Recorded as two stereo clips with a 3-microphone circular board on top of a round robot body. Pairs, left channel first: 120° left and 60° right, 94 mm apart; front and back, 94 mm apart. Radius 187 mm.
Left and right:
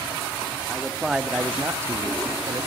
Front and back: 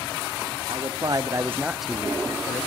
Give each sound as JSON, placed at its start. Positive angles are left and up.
{"t": 0.7, "sound": "a man speaking", "azimuth_deg": -150, "distance_m": 1.2}